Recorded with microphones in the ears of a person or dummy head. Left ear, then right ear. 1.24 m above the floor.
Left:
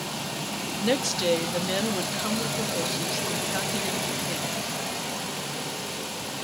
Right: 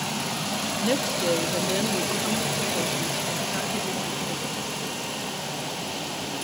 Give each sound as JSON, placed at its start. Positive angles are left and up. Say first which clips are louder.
{"t": 0.8, "sound": "a woman speaking", "louder": "left 1 dB", "side_deg": 25, "distance_m": 1.5}